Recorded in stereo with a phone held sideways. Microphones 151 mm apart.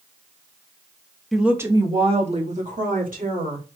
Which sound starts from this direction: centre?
A woman speaking, at 1.3 s.